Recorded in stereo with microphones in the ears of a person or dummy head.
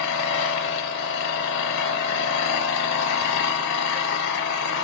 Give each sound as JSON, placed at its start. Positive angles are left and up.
{"t": 0.0, "sound": "an engine running", "side_deg": 60, "distance_m": 0.7}